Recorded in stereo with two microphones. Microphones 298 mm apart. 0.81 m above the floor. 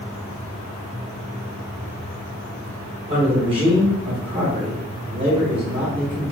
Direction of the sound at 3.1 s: 15° right (ahead or behind).